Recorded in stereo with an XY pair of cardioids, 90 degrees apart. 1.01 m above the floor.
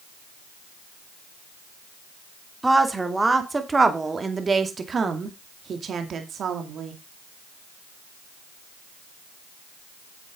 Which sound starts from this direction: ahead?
A woman speaking, at 2.6 s.